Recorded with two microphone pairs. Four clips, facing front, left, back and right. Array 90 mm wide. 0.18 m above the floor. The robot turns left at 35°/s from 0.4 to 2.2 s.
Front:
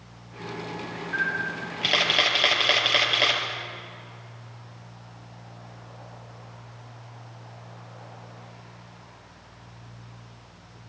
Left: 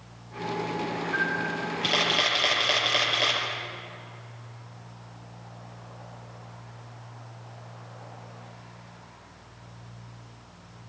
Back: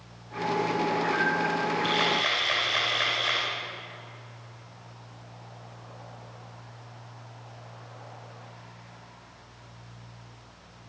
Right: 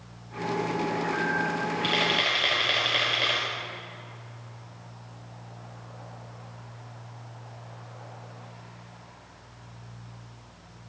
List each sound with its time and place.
1.1 s a camera shutter: 45° left, 5.5 m; by 3.4 s 10° left, 5.5 m